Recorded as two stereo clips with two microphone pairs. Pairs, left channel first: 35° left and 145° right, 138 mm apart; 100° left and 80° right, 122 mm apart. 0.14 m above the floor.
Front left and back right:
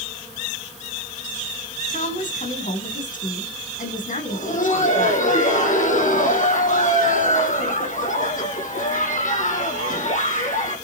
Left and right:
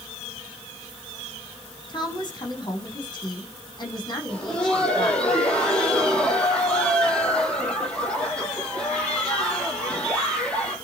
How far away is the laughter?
About 4.5 m.